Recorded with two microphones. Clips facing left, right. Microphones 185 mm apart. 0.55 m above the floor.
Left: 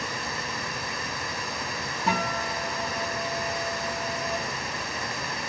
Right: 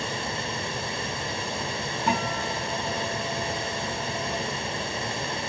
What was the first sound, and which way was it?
Running water, 30° right (ahead or behind).